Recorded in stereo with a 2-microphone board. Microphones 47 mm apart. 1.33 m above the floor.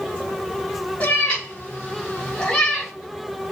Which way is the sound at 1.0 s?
30° left (ahead or behind).